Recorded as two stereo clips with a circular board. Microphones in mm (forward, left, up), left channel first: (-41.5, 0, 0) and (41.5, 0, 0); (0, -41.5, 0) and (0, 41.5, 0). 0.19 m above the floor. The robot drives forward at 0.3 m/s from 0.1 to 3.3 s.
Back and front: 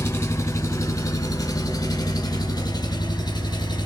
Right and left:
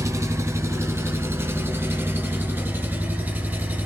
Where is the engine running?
125° left, 1.1 m; by 3.9 s 155° left, 1.8 m.